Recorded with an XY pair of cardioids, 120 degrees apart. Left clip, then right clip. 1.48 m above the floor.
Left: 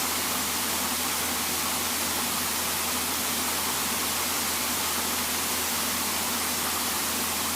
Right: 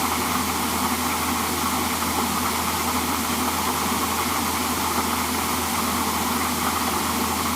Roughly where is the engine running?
Ahead right.